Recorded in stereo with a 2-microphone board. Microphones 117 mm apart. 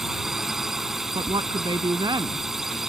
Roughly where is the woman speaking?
Right.